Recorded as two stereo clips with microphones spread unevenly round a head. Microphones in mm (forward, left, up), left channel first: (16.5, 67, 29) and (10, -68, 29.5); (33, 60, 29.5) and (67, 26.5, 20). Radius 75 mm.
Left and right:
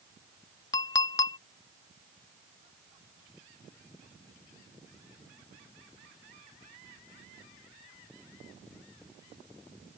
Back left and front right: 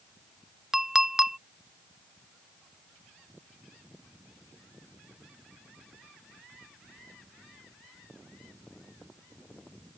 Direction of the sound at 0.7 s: 45° left.